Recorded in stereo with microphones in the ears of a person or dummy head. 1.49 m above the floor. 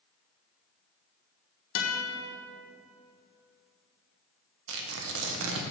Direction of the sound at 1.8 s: 70° left (ahead or behind).